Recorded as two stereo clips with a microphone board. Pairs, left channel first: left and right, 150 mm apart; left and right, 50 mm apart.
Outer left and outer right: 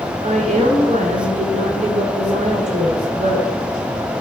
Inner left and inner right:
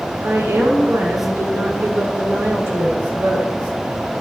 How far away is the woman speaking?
About 7 m.